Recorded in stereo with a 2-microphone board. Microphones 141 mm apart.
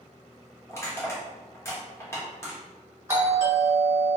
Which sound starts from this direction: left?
Crushing, at 0.7 s.